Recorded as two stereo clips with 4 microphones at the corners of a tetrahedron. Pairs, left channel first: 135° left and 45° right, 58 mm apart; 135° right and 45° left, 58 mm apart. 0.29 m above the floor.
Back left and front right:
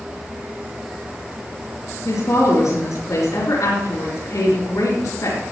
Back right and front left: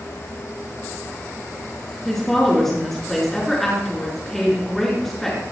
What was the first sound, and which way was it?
A woman speaking, 140° left.